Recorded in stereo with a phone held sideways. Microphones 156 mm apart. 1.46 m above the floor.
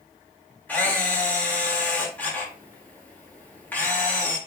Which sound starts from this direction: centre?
A camera shutter, at 0.7 s.